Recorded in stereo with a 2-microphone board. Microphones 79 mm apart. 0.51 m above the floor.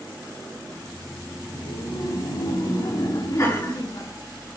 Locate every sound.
0.6 s laughter: 70° left (ahead or behind), 4 m; by 4.1 s 50° left (ahead or behind), 5.5 m
3.4 s laughter: 35° left (ahead or behind), 7 m